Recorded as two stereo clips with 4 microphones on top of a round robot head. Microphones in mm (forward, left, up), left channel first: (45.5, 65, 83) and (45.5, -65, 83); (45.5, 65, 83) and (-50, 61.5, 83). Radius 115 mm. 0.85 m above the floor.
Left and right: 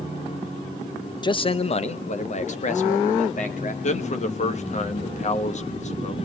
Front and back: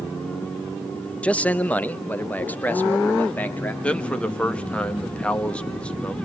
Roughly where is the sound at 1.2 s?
Left.